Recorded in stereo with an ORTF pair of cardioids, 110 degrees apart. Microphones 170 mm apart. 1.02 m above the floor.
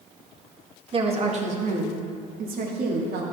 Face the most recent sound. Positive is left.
turn(degrees=-70)